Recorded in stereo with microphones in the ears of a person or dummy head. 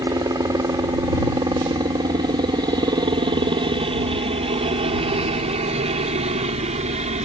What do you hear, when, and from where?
0.0 s a helicopter: 20° right (ahead or behind); by 7.3 s 40° right (ahead or behind)